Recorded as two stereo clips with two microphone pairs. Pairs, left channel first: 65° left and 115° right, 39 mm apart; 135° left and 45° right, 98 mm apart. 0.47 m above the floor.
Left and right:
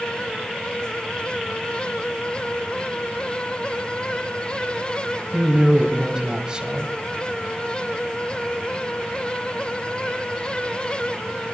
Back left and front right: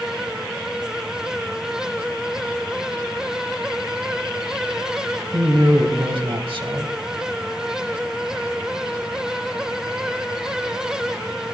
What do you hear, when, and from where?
5.3 s a man speaking: 45° right, 2 m